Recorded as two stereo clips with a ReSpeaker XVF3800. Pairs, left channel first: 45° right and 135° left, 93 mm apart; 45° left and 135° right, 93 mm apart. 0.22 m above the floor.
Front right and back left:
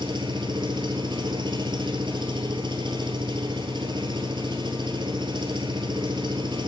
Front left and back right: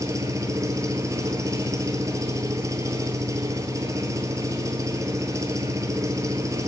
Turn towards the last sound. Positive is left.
turn(degrees=170)